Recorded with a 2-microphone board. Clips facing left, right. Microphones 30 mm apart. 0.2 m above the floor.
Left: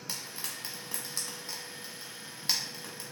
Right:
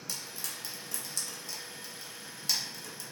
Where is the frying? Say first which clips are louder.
Left 1 dB; 35° left (ahead or behind), 0.8 m.